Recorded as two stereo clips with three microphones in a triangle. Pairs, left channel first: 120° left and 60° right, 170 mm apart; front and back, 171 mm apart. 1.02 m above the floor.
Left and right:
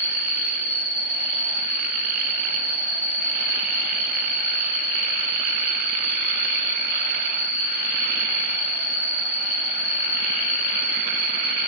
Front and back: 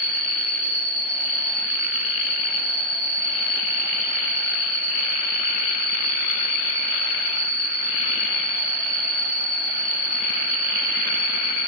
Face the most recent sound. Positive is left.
turn(degrees=-135)